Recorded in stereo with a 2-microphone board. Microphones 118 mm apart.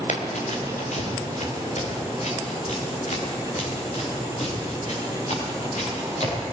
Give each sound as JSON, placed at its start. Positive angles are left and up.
{"t": 0.1, "sound": "running footsteps", "side_deg": 75, "distance_m": 3.5}